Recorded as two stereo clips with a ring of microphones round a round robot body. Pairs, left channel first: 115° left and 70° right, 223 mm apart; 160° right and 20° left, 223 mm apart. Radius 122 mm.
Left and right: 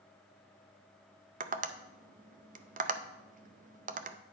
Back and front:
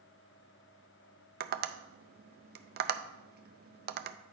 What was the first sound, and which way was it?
Tapping, 20° right.